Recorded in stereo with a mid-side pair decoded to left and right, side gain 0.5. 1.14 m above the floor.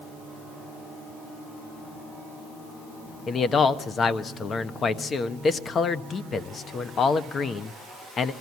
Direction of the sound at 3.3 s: 45° left.